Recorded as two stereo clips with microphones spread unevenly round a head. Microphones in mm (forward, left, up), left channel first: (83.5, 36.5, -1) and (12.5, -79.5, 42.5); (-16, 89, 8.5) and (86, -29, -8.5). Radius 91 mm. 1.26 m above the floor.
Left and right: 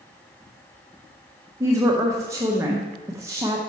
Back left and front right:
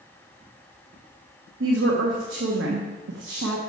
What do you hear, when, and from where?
1.6 s a woman speaking: 55° right, 0.8 m